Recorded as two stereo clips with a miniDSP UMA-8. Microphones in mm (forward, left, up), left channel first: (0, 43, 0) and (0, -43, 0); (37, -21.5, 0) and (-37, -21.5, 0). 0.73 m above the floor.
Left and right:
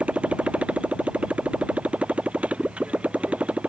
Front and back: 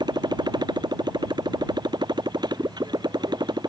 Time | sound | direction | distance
0.0 | a motorcycle | 165° right | ?